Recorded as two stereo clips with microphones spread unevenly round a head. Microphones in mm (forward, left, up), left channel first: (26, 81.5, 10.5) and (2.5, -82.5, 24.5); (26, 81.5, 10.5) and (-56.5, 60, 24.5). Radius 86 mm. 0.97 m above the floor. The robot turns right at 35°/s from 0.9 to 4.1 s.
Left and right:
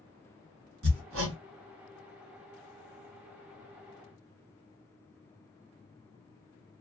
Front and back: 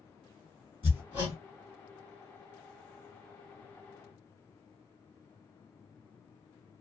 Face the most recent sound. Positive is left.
turn(degrees=5)